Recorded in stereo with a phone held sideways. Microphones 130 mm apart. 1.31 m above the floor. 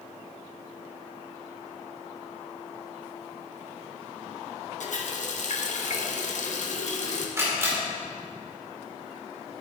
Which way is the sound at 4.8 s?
70° left (ahead or behind).